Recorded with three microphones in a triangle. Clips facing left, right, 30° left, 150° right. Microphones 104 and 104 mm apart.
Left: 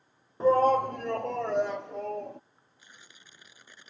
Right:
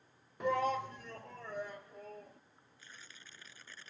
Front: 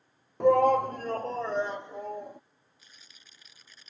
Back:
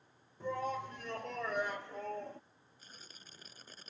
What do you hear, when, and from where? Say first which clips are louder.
0.4 s a shout: left 11 dB, front 17 dB; 35° left; by 2.4 s 110° left
2.8 s tearing paper: left 1 dB, back 4 dB; 165° left